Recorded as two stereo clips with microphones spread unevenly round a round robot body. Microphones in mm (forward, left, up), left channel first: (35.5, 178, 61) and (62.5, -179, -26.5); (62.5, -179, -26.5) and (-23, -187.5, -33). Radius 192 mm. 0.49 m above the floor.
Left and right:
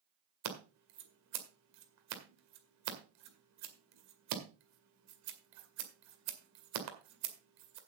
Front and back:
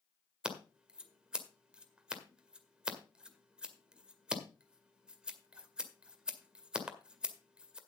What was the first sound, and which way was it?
Scissors, 100° right.